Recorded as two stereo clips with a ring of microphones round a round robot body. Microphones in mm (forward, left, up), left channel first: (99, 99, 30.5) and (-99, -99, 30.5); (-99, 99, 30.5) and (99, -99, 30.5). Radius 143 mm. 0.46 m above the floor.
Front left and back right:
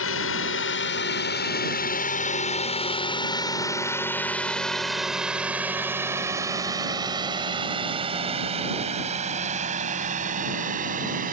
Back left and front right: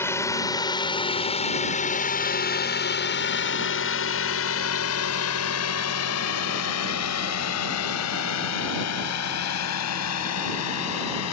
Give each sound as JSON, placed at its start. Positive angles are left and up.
{"t": 0.0, "sound": "a drone", "azimuth_deg": 55}